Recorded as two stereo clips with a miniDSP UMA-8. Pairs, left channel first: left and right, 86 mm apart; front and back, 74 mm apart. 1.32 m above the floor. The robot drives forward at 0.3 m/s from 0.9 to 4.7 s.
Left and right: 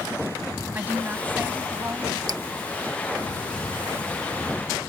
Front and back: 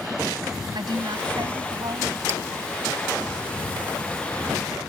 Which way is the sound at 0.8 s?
160° right.